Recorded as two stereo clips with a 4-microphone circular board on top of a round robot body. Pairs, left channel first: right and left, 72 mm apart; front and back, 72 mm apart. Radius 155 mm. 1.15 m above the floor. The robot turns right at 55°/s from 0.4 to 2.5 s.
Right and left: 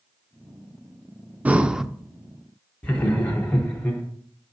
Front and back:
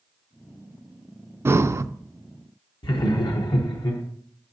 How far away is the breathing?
About 0.5 m.